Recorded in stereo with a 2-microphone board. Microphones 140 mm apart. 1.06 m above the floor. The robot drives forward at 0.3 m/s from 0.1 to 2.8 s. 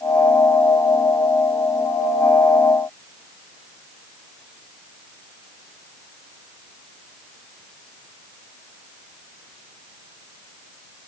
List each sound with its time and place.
Only background noise.